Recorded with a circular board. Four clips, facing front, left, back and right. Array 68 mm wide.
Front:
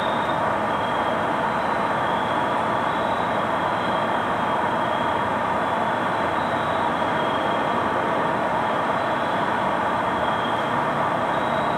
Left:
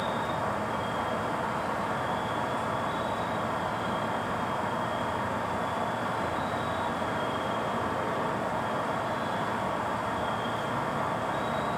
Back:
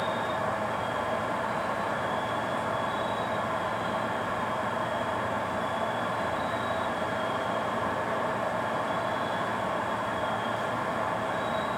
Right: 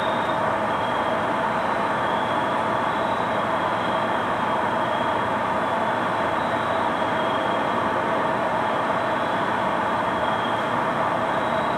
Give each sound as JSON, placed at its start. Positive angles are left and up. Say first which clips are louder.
{"t": 0.0, "sound": "an insect", "louder": "right 8 dB, front 7 dB", "azimuth_deg": -35, "distance_m": 0.9}